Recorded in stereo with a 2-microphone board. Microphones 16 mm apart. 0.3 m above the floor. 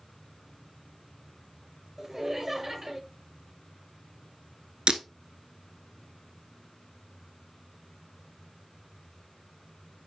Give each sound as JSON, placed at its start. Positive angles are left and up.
{"t": 2.0, "sound": "laughter", "side_deg": -25, "distance_m": 0.9}
{"t": 4.9, "sound": "breaking glass", "side_deg": -85, "distance_m": 0.8}